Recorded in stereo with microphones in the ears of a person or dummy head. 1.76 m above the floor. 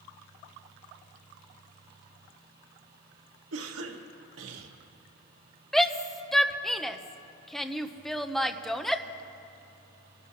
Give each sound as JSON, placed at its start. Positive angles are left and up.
{"t": 3.5, "sound": "a cough", "side_deg": -85, "distance_m": 1.5}
{"t": 5.7, "sound": "a shout", "side_deg": 0, "distance_m": 0.6}